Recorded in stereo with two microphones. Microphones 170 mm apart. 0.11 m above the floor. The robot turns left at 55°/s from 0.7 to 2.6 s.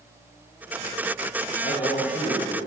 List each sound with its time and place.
1.6 s a man speaking: 70° left, 6 m; by 2.6 s 15° left, 6 m